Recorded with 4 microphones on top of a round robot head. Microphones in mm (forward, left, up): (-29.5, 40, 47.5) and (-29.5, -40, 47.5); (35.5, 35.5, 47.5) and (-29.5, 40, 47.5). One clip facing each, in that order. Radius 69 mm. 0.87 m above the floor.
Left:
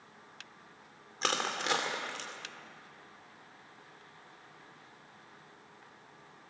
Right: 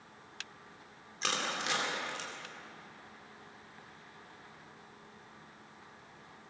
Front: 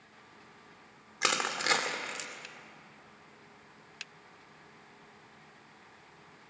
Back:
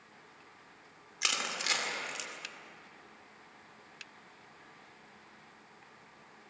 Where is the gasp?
I don't hear a gasp.